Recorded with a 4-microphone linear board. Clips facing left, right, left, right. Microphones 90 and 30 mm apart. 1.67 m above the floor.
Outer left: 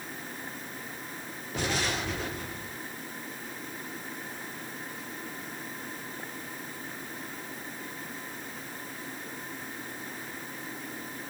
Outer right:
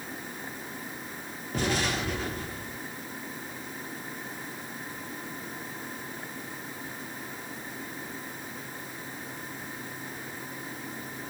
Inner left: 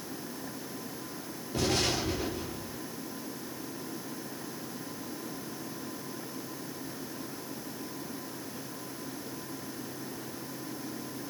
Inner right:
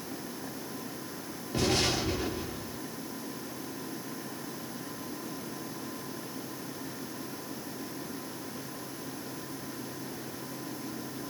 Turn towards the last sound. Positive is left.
turn(degrees=-45)  # may be behind; listen again after turning